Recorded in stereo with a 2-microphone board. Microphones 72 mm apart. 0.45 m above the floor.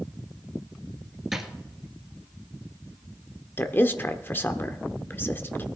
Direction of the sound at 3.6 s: 30° left (ahead or behind).